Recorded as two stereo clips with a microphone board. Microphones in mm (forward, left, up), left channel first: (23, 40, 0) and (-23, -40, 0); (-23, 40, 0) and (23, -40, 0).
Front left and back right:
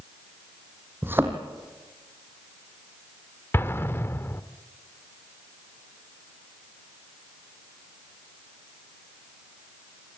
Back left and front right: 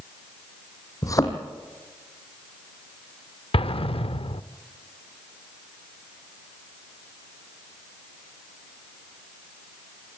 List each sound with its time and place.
1.0 s a thud: 170° left, 2.5 m
3.5 s an explosion: 125° left, 0.6 m